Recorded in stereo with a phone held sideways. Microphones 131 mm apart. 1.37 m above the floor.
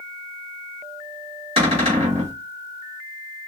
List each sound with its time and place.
1.6 s a cupboard door: 45° right (ahead or behind), 3 m